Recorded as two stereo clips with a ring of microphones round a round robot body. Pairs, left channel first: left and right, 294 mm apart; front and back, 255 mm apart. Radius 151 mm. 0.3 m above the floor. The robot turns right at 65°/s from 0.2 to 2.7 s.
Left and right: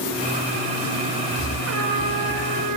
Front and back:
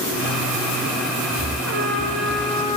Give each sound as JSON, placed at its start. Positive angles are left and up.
{"t": 1.7, "sound": "a trumpet", "azimuth_deg": -135, "distance_m": 4.5}